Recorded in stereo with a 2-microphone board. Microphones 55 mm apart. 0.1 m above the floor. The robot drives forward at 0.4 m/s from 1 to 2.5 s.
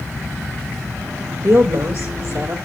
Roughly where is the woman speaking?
Right.